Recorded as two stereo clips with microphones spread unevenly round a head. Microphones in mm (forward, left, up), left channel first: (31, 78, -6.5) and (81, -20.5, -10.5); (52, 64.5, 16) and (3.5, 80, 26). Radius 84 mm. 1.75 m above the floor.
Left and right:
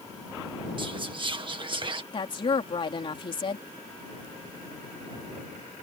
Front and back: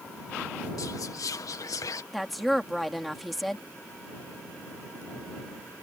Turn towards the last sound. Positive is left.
turn(degrees=75)